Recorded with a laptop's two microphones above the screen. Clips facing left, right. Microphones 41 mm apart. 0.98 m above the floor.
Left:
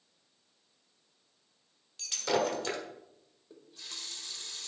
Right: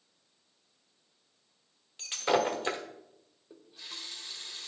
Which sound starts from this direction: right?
Breaking glass, at 2.0 s.